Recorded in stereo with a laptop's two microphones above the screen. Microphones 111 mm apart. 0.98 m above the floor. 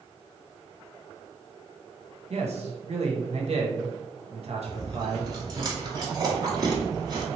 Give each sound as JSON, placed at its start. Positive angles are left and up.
{"t": 2.3, "sound": "a man speaking", "side_deg": -65, "distance_m": 1.0}
{"t": 4.7, "sound": "chewing", "side_deg": -35, "distance_m": 1.3}